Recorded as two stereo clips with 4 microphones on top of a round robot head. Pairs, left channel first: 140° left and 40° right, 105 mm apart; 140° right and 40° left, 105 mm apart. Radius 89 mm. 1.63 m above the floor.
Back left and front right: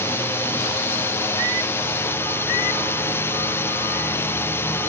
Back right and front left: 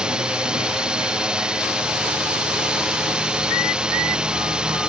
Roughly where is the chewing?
I don't hear chewing.